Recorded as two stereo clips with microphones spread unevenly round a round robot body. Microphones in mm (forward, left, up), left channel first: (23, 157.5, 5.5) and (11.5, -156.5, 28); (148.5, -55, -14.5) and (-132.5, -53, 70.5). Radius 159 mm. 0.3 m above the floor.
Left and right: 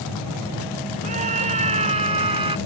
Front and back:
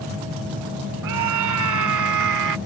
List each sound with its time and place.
1.0 s a scream: 160° right; by 2.6 s 165° right